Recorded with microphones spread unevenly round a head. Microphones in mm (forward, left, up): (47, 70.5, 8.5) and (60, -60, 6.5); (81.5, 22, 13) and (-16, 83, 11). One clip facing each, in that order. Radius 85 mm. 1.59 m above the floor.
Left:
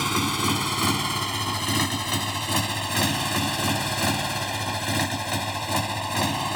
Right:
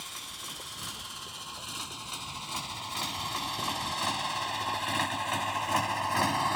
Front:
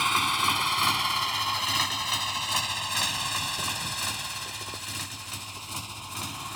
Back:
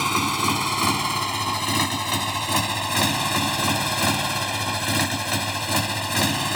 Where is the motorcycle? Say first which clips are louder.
Left 22 dB, back 4 dB; 100° left; by 6.6 s 170° left.